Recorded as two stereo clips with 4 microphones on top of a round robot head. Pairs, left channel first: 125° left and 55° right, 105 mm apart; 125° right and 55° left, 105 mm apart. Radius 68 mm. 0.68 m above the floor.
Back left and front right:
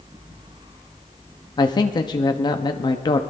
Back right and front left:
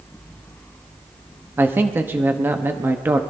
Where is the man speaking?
115° left, 0.8 m.